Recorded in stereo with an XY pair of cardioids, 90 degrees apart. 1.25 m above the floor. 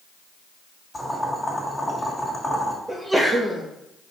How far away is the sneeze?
About 1.3 m.